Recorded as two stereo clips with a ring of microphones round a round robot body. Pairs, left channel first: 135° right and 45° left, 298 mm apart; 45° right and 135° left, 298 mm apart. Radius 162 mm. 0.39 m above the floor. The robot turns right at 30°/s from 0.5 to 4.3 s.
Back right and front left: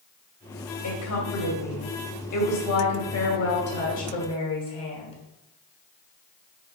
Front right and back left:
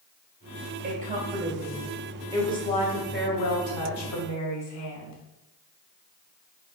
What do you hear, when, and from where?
0.8 s a woman speaking: 170° right, 2.5 m; by 5.2 s 65° right, 2.5 m